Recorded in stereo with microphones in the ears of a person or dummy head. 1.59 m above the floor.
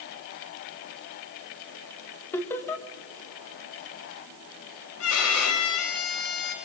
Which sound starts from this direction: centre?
Laughter, at 2.3 s.